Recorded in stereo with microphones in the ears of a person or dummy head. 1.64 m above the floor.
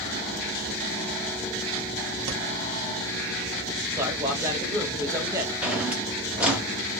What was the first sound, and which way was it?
Breathing, 50° right (ahead or behind).